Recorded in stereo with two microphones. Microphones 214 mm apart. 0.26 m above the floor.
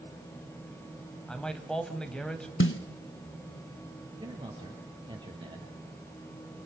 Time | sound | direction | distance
1.3 | a man speaking | 5° left (ahead or behind) | 1.8 m
2.6 | a snare drum | 75° left (ahead or behind) | 1.1 m
4.2 | a man speaking | 25° right (ahead or behind) | 5 m